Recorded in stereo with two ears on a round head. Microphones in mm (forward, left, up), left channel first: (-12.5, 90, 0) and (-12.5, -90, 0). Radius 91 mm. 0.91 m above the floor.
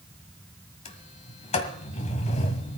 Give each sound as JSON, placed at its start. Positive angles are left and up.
{"t": 0.8, "sound": "a sliding door", "side_deg": 35, "distance_m": 1.6}